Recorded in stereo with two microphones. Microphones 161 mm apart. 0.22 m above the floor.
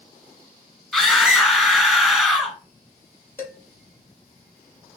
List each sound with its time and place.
0.9 s a scream: centre (ahead or behind), 2 m
3.4 s dishes clattering: 15° left (ahead or behind), 3.5 m